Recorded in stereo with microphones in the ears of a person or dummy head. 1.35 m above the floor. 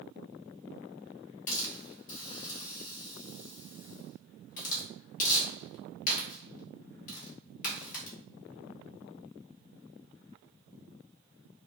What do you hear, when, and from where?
1.5 s a hiss: 45° left (ahead or behind), 2 m